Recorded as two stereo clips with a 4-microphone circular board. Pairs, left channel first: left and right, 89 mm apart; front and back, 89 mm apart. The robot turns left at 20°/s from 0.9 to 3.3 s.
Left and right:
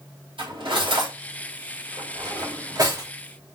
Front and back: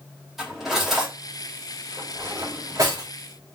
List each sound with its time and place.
0.4 s cutlery clinking: 95° right, 2.5 m; by 3.1 s 140° right, 2.5 m